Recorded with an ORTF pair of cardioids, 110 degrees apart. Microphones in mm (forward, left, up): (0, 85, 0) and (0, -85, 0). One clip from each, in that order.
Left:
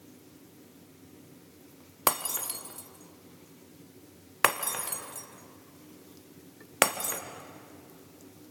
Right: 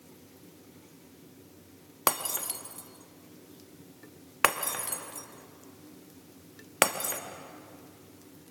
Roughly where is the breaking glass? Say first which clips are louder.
Even; ahead.